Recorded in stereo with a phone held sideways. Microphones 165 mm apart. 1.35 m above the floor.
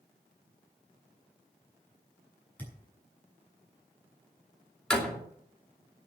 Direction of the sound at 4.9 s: 5° left (ahead or behind).